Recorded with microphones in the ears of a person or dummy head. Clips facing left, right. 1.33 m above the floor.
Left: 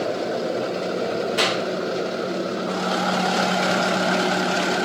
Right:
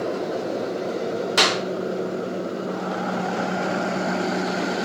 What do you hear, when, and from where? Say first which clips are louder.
1.4 s a clap: even; 80° right, 2.5 m